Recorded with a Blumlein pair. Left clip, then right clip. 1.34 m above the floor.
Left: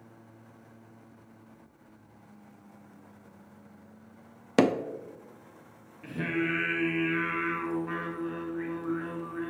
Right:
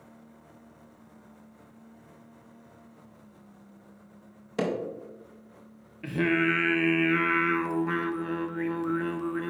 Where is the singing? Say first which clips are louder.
Right 6 dB; 65° right, 0.6 m.